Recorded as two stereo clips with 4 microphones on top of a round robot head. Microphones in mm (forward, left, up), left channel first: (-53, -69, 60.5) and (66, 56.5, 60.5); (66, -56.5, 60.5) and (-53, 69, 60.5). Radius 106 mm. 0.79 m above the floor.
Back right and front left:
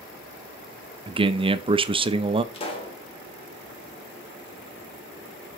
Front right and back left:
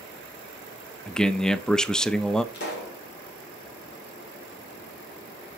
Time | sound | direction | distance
1.1 | a man speaking | 35° left | 0.5 m
2.5 | a pop | 75° right | 1.9 m